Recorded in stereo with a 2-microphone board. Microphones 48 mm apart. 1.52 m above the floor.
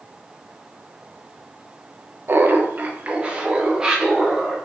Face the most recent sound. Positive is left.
turn(degrees=-10)  # may be behind; listen again after turning